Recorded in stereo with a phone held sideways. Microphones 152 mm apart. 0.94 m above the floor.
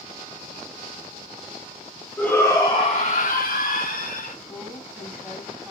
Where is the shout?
10° left (ahead or behind), 1.8 m; by 4.3 s 55° left (ahead or behind), 2.5 m.